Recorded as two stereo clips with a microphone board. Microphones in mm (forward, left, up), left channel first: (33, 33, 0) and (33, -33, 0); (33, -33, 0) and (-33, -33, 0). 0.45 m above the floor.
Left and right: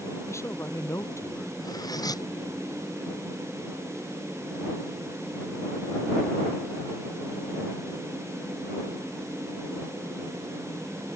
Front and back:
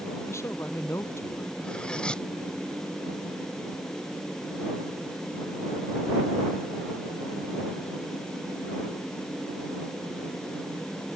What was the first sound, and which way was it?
A man speaking, 45° left.